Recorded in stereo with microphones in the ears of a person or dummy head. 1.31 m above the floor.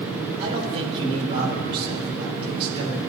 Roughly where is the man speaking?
Right.